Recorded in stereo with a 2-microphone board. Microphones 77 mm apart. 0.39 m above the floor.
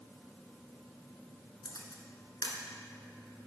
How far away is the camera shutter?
About 1.1 m.